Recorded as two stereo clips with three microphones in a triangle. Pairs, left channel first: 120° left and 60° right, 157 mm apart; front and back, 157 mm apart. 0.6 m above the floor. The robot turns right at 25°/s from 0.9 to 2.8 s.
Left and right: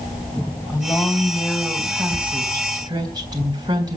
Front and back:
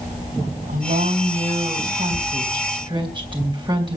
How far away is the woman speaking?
About 3.5 m.